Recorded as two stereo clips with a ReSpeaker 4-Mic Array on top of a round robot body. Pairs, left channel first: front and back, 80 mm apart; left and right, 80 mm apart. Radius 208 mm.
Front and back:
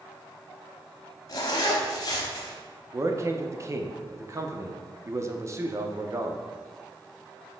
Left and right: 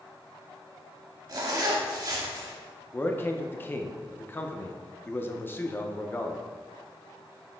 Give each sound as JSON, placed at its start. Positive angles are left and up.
{"t": 1.3, "sound": "a zipper", "azimuth_deg": -45, "distance_m": 0.6}
{"t": 2.9, "sound": "a man speaking", "azimuth_deg": 145, "distance_m": 1.0}